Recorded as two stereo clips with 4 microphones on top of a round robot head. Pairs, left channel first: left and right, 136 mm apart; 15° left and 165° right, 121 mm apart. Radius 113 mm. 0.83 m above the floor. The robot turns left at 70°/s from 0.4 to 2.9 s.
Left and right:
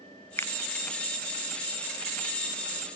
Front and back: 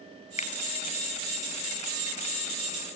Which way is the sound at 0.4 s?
20° left.